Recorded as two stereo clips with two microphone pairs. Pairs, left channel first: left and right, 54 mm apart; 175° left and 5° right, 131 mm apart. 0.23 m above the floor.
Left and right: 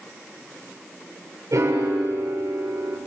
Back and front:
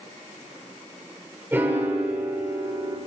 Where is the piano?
80° right, 6.5 m.